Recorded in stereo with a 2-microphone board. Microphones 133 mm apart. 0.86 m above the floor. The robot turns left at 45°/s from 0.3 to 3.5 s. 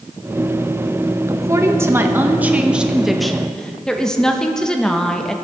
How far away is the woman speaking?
About 0.9 m.